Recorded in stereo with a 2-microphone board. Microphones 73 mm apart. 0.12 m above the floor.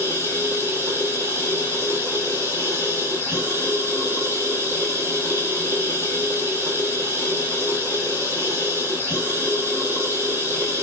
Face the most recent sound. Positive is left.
turn(degrees=-30)  # may be behind; listen again after turning